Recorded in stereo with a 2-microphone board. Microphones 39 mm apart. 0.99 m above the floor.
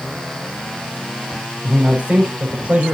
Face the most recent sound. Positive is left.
turn(degrees=-40)  # may be behind; listen again after turning